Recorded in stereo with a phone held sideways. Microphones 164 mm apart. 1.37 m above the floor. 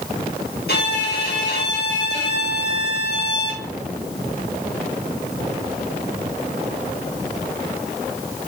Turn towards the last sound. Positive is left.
turn(degrees=80)